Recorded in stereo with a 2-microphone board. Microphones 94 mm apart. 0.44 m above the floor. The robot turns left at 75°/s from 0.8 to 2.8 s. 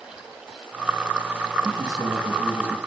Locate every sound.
1.6 s a man speaking: 120° right, 3.5 m; by 2.8 s 155° left, 3.5 m